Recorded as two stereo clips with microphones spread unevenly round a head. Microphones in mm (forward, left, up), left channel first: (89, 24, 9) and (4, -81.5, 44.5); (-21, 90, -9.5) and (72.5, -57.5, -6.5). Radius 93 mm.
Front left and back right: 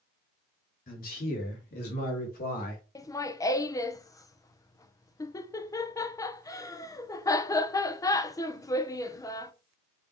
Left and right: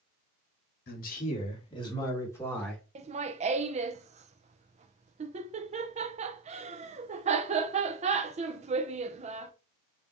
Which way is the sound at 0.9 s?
90° left.